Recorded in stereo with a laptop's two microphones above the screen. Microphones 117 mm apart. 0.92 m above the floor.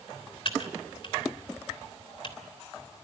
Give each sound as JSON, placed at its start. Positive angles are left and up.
{"t": 0.5, "sound": "typing on a keyboard", "side_deg": 50, "distance_m": 3.0}